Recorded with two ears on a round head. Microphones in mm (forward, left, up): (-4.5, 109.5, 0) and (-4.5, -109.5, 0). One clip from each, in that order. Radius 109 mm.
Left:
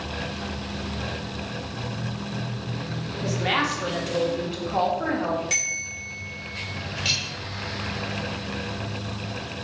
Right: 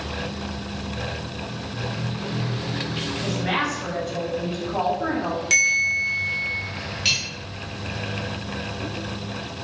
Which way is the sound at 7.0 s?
25° right (ahead or behind).